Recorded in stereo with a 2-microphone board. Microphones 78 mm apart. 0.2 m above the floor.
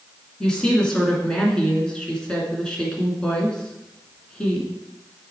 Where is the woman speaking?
10° left (ahead or behind), 2 m.